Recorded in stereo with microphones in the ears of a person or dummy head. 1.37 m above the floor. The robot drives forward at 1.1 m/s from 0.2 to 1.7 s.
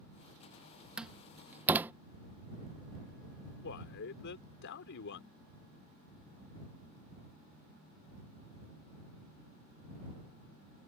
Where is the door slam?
5° right (ahead or behind); by 1.9 s 10° right (ahead or behind).